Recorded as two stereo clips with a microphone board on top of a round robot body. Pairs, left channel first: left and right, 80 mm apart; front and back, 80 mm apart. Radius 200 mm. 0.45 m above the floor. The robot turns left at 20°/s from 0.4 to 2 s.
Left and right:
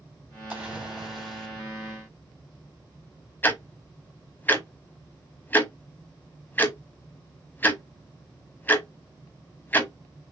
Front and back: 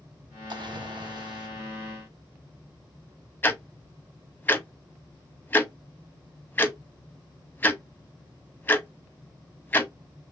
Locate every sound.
0.5 s a splash: 165° right, 3 m; by 1.5 s 175° left, 3 m
3.4 s ticking: 45° left, 1.5 m